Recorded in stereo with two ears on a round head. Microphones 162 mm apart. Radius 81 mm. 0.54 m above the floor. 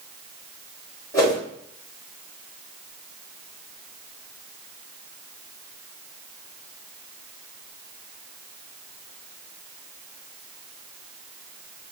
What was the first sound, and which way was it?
A whoosh, 20° left (ahead or behind).